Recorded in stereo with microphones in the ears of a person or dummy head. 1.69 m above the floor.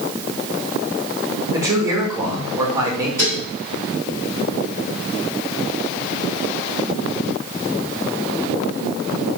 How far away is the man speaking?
About 3.5 m.